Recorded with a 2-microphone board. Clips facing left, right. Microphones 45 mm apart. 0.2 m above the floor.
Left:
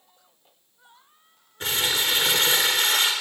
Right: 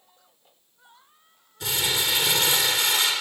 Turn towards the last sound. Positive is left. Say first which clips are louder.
# left 1 dB
turn(degrees=45)  # may be behind; listen again after turning